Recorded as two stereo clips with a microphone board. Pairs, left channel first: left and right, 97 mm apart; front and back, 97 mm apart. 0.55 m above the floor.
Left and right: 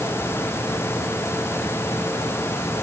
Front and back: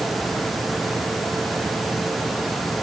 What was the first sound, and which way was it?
Only background noise.